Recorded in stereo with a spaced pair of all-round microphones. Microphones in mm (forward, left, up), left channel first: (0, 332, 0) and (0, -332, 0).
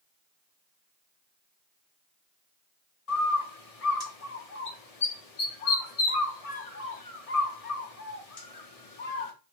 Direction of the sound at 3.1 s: 60° left (ahead or behind).